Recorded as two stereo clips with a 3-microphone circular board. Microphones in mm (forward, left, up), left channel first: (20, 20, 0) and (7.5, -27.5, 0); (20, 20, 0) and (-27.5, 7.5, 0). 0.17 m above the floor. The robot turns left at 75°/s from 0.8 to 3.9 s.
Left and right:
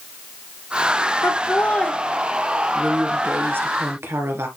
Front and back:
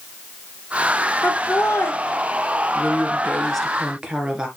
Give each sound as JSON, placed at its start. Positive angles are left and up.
{"t": 1.2, "sound": "laughter", "azimuth_deg": 60, "distance_m": 2.0}
{"t": 2.8, "sound": "a woman speaking", "azimuth_deg": -5, "distance_m": 2.0}